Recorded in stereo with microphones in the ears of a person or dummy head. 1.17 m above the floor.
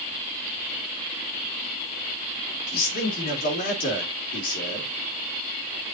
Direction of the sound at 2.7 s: 55° left (ahead or behind).